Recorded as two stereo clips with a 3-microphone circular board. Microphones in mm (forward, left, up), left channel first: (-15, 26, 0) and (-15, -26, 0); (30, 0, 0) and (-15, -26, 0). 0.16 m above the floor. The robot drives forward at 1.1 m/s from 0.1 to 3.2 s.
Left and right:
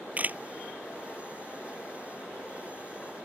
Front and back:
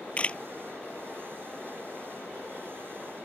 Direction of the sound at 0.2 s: 30° right.